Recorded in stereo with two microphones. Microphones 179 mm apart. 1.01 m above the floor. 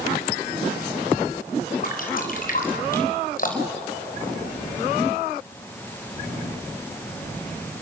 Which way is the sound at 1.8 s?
50° left (ahead or behind).